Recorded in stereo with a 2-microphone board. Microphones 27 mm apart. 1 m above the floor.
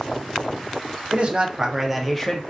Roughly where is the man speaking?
Right.